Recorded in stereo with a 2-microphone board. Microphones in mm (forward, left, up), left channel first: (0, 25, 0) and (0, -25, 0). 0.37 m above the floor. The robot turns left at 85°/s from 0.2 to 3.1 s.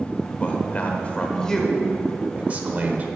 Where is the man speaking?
120° left, 1.0 m; by 3.1 s 110° right, 1.0 m.